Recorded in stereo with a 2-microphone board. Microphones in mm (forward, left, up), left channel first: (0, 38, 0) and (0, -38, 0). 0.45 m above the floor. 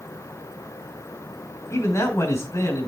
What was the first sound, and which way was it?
A man speaking, 40° left (ahead or behind).